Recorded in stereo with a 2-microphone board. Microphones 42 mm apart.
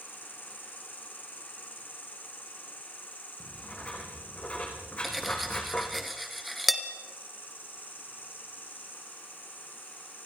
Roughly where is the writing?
Left.